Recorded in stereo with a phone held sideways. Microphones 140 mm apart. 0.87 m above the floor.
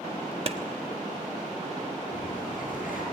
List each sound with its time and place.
0.5 s a clap: 45° right (ahead or behind), 0.9 m
2.1 s a bird: 70° left (ahead or behind), 9.5 m